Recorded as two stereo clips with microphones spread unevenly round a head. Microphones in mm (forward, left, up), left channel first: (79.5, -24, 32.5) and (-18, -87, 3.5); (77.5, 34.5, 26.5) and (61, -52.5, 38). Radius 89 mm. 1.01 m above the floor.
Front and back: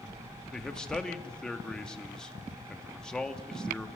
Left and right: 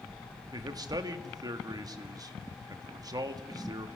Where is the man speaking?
55° right, 1.7 m.